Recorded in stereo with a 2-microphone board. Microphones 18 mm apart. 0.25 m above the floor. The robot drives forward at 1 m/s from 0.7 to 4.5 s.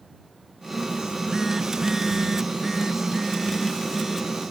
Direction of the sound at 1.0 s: 35° right (ahead or behind).